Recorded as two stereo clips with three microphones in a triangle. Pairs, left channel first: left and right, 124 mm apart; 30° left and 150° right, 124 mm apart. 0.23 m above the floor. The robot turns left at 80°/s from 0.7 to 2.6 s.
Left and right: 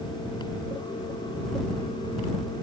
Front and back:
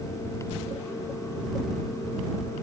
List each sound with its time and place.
Only background noise.